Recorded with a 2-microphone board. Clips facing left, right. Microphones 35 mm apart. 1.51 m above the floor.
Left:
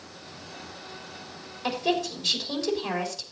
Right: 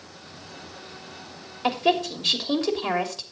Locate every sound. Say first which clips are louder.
1.6 s a woman speaking: right 4 dB; 45° right (ahead or behind), 3 m